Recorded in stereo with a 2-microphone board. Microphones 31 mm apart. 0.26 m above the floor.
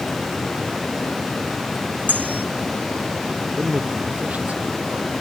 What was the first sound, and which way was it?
Cutlery clinking, 70° right (ahead or behind).